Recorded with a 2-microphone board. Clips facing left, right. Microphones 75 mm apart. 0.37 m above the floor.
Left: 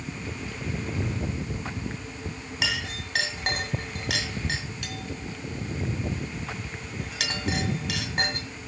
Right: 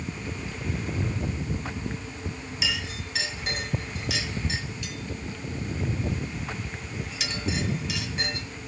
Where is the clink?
65° left (ahead or behind), 1.8 m.